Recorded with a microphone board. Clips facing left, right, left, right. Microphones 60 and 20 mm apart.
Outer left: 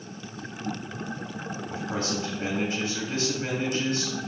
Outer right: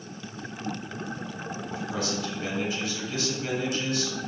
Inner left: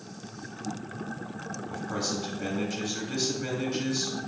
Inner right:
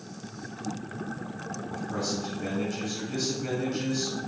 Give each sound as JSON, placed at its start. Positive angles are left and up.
{"t": 1.7, "sound": "a man speaking", "side_deg": 40, "distance_m": 1.1}